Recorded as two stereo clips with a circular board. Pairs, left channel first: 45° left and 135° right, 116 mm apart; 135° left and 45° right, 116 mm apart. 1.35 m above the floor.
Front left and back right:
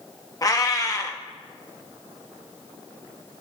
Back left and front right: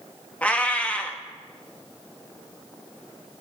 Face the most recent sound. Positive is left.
turn(degrees=65)